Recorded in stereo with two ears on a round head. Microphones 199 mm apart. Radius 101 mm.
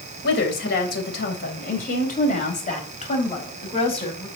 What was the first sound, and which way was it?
A woman speaking, 50° left (ahead or behind).